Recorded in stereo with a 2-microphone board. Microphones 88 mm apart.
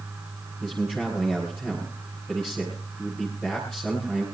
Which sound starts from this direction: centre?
A man speaking, at 0.6 s.